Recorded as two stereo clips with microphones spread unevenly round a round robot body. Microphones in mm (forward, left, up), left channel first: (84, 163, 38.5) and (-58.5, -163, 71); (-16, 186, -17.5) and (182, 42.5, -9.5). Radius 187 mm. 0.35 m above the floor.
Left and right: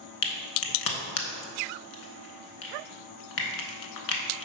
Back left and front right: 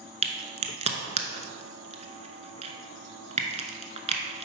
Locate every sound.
0.2 s a crack: 30° left, 1.0 m